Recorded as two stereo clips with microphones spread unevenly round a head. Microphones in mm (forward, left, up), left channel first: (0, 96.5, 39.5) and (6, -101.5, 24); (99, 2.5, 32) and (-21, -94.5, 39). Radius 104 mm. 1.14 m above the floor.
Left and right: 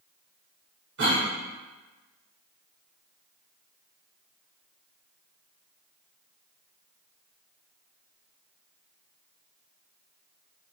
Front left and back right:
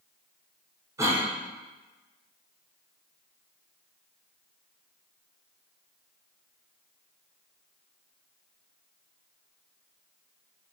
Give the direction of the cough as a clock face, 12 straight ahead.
2 o'clock.